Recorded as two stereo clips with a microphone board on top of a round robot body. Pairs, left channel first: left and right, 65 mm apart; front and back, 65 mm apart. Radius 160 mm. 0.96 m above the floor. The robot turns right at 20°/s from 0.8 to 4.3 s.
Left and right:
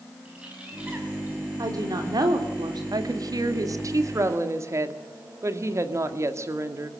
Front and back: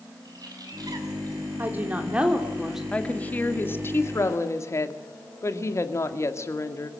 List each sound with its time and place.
0.2 s a bird: 165° right, 6.5 m; by 1.4 s 150° right, 6.5 m
1.6 s a woman speaking: 120° right, 3.5 m; by 2.8 s 95° right, 3.5 m
2.9 s a woman speaking: 75° right, 2 m; by 6.9 s 45° right, 2 m